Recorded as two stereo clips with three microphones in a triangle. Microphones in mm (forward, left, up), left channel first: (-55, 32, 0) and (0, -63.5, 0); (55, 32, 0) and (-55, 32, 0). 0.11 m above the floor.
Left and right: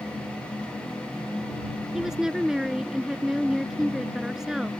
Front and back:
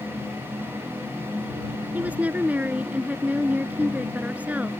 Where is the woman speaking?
135° right.